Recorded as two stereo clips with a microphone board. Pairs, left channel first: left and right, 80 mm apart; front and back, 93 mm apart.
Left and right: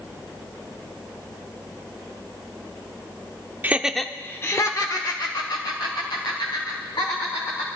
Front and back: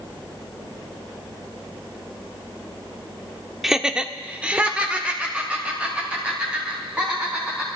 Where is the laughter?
100° right, 0.7 m; by 7.7 s 105° left, 3.5 m.